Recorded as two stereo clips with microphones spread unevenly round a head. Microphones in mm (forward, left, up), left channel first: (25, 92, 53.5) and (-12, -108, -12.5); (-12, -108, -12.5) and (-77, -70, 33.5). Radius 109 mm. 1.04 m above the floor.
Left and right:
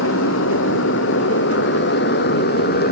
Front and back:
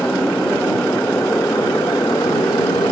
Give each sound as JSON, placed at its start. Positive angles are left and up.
{"t": 0.0, "sound": "a motorcycle", "azimuth_deg": 50}